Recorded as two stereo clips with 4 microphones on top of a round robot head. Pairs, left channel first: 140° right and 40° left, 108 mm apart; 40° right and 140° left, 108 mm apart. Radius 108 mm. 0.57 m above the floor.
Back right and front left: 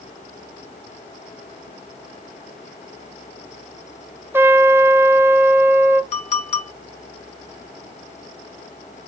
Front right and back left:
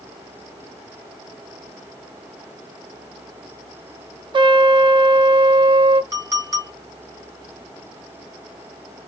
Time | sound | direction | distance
4.3 | a trumpet | 105° left | 0.6 m
6.1 | a clink | 155° right | 1.7 m